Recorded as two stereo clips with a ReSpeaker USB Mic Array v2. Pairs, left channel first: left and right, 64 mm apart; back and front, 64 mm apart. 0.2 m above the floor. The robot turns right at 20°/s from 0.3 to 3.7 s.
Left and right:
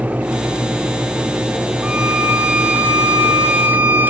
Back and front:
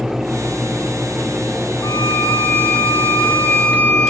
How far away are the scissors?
I don't hear scissors.